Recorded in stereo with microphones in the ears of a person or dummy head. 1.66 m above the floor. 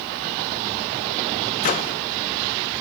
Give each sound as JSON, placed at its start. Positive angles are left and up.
{"t": 1.6, "sound": "a microwave", "side_deg": 40, "distance_m": 1.0}